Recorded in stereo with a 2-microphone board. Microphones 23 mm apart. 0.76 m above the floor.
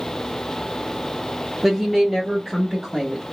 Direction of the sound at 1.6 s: 10° right (ahead or behind).